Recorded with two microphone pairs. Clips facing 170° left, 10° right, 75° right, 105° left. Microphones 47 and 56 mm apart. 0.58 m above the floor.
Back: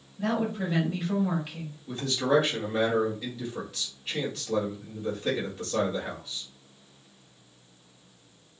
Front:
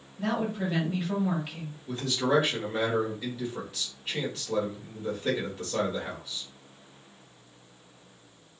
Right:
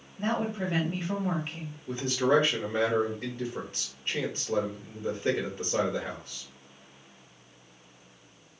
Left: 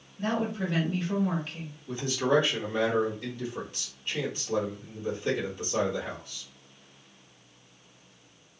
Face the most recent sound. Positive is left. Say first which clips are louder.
# back 1 dB, right 1 dB
turn(degrees=-95)